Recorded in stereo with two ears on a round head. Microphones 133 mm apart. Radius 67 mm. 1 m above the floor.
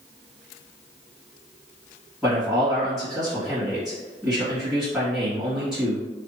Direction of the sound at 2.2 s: 5° right (ahead or behind).